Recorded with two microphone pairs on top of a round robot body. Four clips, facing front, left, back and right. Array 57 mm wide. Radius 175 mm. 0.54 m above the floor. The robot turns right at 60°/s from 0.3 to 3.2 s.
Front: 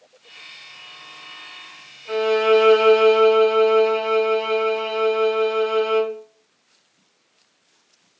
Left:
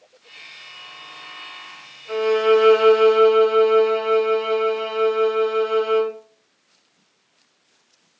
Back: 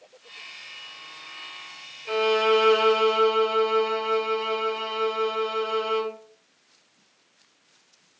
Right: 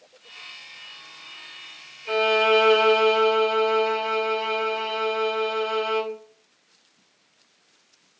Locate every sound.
2.1 s a violin: 120° right, 1.8 m; by 6.1 s 50° right, 1.8 m